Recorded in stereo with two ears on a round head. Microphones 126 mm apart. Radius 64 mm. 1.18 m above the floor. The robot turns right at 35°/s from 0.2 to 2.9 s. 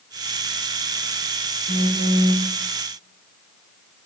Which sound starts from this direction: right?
A phone buzzing, at 1.7 s.